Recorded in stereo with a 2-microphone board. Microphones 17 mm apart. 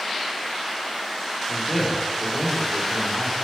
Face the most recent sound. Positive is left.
turn(degrees=30)  # may be behind; listen again after turning